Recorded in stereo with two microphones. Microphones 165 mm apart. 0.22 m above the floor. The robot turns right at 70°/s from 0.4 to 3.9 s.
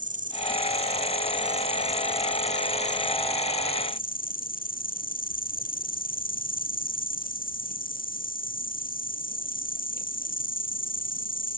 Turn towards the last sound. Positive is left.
turn(degrees=120)